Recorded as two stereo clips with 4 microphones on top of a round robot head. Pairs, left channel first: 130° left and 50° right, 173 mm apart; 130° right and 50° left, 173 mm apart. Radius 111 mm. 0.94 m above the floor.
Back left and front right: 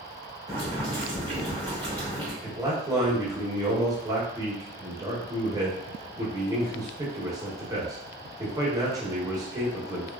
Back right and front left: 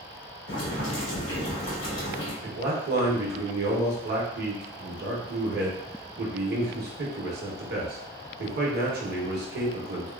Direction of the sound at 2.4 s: 20° left.